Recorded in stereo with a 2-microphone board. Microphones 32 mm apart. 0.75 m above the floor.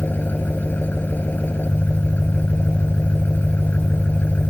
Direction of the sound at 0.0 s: 65° left (ahead or behind).